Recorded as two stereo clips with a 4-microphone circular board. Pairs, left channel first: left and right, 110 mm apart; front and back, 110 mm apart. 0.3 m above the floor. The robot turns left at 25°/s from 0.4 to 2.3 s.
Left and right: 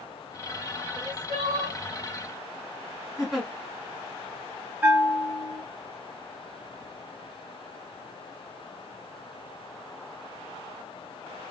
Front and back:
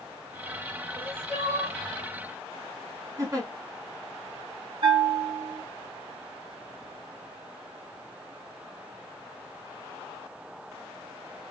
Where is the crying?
125° right, 3 m; by 1.8 s 145° right, 3 m.